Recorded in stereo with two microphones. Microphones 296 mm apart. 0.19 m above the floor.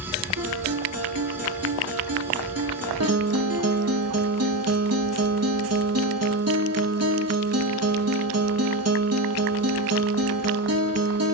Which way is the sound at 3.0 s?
65° right (ahead or behind).